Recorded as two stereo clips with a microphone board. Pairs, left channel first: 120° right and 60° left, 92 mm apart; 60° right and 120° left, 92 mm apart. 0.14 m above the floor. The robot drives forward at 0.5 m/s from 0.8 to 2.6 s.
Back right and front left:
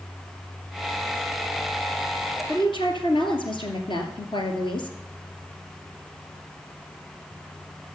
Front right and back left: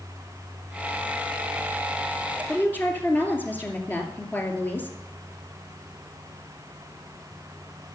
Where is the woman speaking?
125° right, 2.5 m.